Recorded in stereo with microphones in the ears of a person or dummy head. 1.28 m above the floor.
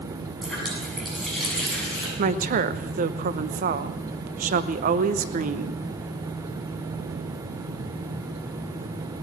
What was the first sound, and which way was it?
A running tap, 5° left (ahead or behind).